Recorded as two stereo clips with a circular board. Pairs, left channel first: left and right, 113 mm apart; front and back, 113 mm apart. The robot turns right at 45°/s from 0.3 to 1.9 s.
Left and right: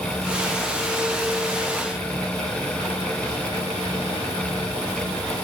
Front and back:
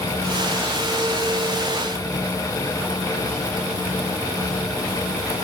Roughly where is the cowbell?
No cowbell in this recording.